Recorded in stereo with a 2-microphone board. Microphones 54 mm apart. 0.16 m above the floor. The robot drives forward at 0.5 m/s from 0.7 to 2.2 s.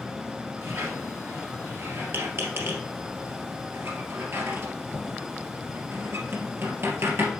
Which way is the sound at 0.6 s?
60° right (ahead or behind).